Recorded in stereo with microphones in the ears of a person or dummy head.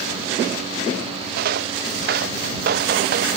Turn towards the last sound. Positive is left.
turn(degrees=-60)  # may be behind; listen again after turning